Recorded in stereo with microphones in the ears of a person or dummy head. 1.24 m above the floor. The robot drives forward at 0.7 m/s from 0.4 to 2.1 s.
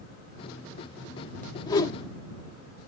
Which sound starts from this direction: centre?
A whoosh, at 1.7 s.